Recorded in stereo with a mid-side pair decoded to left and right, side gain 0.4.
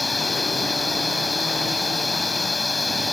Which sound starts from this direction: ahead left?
A machine running, at 0.0 s.